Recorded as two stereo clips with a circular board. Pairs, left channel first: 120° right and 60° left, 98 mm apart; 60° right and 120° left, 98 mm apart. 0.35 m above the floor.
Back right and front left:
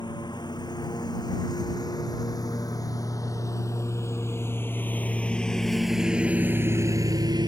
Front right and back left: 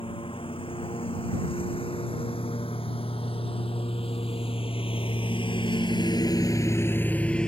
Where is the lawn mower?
80° right; by 7.5 s 20° left.